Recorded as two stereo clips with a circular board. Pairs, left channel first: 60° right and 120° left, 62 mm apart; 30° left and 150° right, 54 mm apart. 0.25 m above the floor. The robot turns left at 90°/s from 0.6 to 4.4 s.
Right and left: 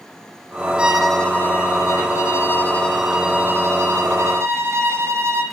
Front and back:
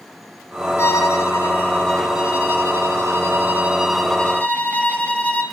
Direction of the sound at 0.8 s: 55° left.